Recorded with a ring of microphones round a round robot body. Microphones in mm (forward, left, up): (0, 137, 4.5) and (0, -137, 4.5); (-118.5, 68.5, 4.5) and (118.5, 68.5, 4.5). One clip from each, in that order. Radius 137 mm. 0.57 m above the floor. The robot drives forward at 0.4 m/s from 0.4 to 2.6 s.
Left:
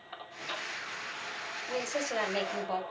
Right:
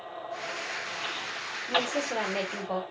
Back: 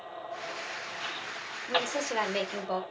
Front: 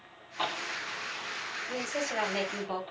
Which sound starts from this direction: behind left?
A woman speaking, at 1.7 s.